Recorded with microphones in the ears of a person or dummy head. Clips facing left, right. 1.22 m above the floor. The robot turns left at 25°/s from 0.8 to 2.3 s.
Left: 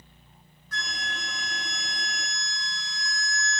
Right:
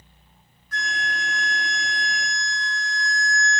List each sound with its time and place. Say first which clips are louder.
0.7 s a flute: right 6 dB; 95° left, 1.4 m; by 3.6 s 55° left, 1.4 m